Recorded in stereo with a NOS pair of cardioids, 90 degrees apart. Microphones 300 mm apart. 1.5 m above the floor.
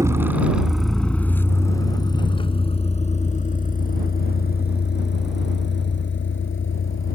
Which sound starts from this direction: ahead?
A vehicle, at 0.0 s.